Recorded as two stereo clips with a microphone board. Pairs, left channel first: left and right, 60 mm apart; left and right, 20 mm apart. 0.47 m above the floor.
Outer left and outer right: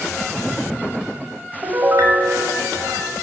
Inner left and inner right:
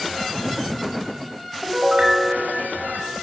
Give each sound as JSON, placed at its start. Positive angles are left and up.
{"t": 1.6, "sound": "a piano", "side_deg": -60, "distance_m": 0.9}